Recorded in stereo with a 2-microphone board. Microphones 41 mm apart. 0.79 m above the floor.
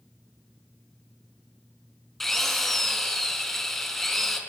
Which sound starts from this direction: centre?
A drill, at 2.2 s.